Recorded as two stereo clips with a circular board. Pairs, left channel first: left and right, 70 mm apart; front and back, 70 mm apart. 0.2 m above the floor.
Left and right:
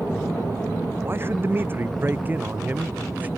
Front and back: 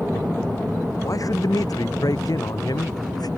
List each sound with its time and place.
1.0 s a man speaking: 35° right; by 3.3 s 20° right